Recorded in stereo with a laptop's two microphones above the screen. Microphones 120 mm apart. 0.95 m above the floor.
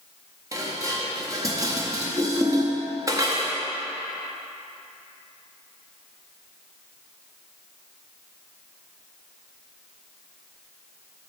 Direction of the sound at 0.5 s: 30° right (ahead or behind).